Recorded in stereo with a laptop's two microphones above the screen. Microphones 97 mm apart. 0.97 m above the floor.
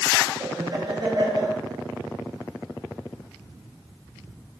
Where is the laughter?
50° right (ahead or behind), 1.7 m.